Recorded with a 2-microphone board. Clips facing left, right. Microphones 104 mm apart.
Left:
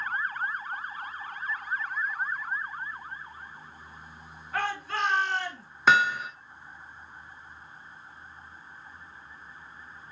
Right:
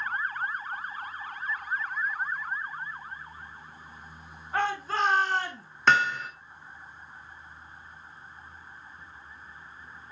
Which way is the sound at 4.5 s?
25° right (ahead or behind).